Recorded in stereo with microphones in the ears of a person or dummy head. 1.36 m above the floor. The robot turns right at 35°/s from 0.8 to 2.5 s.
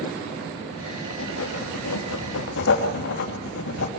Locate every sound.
1.1 s writing: 65° left, 3 m; by 3.9 s 115° left, 3 m